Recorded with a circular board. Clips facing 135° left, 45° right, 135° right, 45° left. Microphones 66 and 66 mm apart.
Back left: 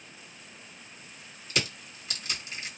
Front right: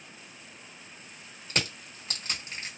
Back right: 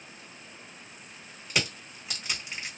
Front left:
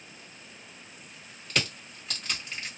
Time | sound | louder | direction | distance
1.5 | crushing | even, even | 65° right | 1.5 m